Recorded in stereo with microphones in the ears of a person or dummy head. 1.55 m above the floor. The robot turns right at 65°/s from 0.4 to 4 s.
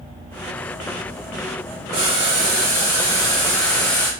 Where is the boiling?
20° right (ahead or behind), 0.9 m; by 4.1 s 10° left (ahead or behind), 0.9 m.